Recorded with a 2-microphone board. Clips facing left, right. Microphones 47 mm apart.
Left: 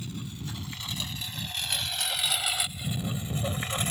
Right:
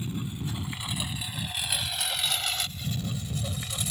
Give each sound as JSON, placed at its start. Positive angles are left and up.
{"t": 0.0, "sound": "a lawn mower", "side_deg": -20}